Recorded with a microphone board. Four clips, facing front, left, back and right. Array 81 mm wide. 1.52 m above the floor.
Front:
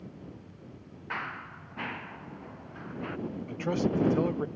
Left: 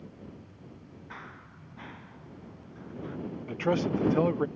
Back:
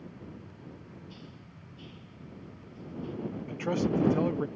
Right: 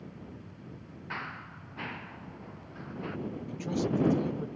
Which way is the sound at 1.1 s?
20° right.